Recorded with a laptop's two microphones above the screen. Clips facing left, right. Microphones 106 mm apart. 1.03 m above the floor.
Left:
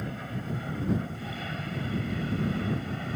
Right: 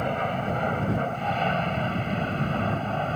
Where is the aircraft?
65° right (ahead or behind); by 3.2 s 55° right (ahead or behind).